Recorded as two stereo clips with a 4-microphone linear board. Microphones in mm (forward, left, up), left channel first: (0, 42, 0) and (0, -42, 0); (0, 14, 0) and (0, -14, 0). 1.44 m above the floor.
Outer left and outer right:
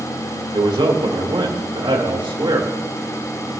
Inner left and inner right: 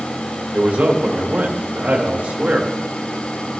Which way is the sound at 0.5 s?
80° right.